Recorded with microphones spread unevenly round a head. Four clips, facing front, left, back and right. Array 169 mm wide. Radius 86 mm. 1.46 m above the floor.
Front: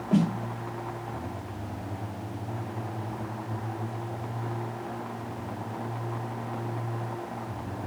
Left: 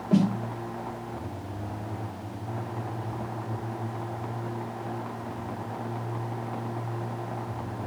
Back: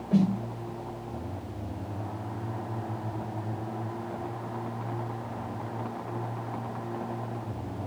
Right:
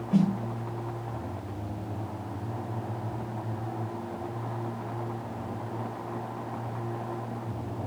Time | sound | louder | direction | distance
0.1 | a snare drum | left 2 dB, even | 15° left | 1.1 m